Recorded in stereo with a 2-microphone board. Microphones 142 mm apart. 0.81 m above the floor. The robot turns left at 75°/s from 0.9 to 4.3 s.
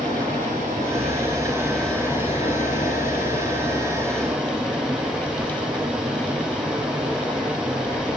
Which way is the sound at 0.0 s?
115° right.